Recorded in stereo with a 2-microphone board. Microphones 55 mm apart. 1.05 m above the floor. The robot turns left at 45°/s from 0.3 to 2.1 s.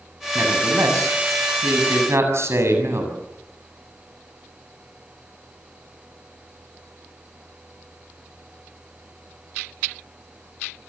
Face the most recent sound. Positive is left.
turn(degrees=-120)